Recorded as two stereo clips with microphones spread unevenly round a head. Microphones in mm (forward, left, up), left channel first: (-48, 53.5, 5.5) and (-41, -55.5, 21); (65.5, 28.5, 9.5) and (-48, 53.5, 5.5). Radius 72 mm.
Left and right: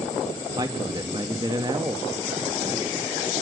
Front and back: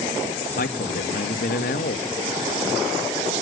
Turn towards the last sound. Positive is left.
turn(degrees=-20)